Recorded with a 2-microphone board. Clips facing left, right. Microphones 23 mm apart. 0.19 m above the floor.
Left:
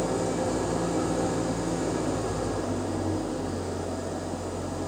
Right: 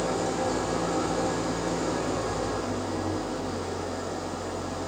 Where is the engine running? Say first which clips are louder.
Even; 20° right (ahead or behind), 5.5 m.